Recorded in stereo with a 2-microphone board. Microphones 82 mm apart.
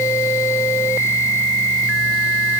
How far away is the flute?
I don't hear a flute.